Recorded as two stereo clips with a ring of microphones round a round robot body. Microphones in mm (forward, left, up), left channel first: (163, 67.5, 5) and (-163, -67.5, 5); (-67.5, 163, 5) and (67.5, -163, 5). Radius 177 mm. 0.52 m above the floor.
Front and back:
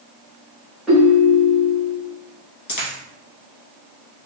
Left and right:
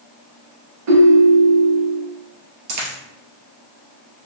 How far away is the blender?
No blender in this recording.